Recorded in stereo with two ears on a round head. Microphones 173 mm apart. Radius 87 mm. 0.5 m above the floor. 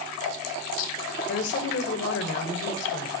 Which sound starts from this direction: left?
A woman speaking, at 1.3 s.